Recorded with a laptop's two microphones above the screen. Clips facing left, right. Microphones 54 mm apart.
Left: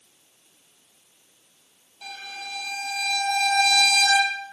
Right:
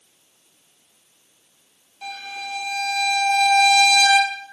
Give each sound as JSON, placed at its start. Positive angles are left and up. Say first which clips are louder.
{"t": 2.0, "sound": "a violin", "louder": "right 5 dB", "side_deg": -15, "distance_m": 3.0}